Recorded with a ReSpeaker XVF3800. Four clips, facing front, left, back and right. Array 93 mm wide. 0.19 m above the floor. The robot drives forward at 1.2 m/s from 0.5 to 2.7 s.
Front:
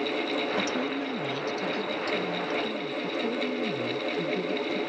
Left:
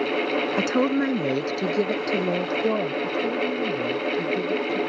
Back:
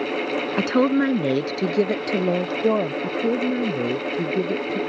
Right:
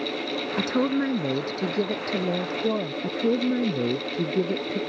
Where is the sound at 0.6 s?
170° left; by 2.9 s 175° left.